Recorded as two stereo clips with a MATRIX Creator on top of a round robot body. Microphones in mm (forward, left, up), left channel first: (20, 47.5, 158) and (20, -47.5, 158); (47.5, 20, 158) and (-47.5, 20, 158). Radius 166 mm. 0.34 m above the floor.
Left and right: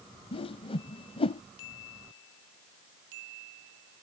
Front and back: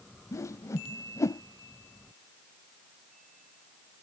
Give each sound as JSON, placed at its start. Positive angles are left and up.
{"t": 0.3, "sound": "a whoosh", "azimuth_deg": 60}